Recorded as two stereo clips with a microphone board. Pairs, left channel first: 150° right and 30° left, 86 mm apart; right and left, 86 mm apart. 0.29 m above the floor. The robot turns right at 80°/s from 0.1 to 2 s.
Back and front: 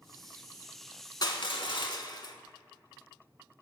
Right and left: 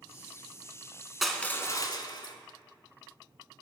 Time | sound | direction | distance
1.2 | crushing | straight behind | 0.9 m